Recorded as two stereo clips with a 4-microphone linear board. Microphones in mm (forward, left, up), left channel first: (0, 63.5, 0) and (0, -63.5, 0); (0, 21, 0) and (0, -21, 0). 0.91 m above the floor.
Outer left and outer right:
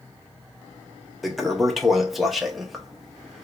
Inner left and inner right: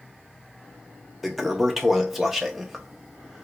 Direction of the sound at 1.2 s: Centre (ahead or behind).